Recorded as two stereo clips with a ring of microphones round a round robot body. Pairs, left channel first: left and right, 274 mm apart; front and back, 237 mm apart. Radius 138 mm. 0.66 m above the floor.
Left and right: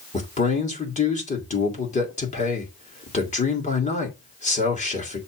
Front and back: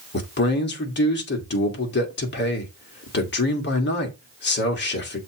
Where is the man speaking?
30° left, 1.9 m.